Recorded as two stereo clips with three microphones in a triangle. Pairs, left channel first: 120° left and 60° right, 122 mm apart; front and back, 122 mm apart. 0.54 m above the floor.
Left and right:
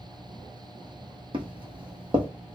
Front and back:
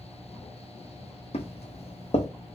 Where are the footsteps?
20° right, 1.1 m.